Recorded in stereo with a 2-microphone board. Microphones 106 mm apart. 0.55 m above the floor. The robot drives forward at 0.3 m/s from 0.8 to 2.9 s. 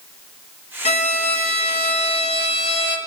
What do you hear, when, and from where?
0.8 s a violin: 85° left, 1.1 m; by 3.0 s 65° left (ahead or behind), 1.2 m